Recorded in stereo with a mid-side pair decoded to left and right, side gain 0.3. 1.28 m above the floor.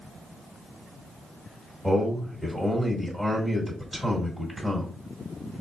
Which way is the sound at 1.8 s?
5° right.